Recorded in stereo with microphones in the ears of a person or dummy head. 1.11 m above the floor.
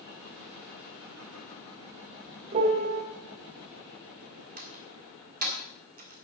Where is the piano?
35° right (ahead or behind), 1.5 m.